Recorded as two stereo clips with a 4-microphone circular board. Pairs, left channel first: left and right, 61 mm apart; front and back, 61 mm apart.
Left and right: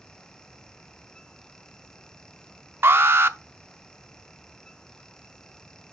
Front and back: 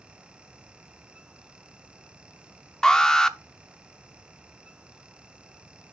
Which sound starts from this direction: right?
An alarm, at 2.8 s.